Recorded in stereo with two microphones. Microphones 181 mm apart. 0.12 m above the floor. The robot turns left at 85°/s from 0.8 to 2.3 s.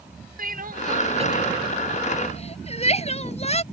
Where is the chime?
No chime in this recording.